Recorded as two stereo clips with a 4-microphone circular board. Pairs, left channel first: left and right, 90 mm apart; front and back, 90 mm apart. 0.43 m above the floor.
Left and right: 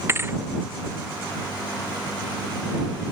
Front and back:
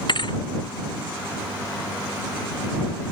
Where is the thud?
30° right.